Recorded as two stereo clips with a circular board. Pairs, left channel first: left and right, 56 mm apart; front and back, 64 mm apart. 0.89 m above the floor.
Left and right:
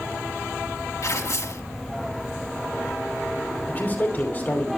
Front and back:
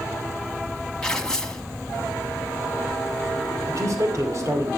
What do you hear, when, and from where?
1.0 s tearing paper: 80° left, 1.7 m
3.7 s a man speaking: 145° left, 2.5 m